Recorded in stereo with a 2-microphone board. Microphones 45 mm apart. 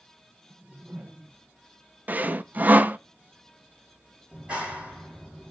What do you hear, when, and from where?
0.5 s a whoosh: 45° right (ahead or behind), 1.0 m
2.1 s sawing: 40° right (ahead or behind), 0.6 m
4.3 s a clap: 25° right (ahead or behind), 4.5 m